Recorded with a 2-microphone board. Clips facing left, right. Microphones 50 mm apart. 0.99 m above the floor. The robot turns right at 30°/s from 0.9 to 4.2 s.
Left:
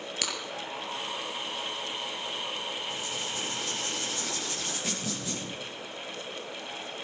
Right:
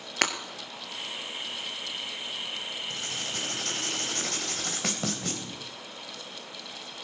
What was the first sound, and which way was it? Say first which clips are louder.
Breaking glass: right 8 dB; 55° right (ahead or behind).